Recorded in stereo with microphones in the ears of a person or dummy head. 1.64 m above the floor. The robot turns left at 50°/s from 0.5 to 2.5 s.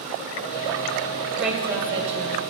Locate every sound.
1.4 s a woman speaking: straight ahead, 0.9 m; by 2.4 s 55° right, 0.9 m